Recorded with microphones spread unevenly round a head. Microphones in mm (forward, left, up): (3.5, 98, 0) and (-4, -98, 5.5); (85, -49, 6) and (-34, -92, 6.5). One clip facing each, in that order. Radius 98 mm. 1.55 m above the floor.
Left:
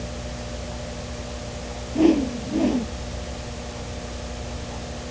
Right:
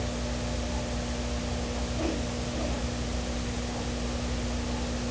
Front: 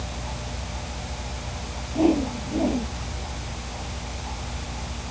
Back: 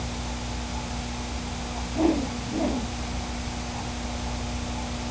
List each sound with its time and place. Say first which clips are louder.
1.9 s a whoosh: left 17 dB, front 3 dB; 100° left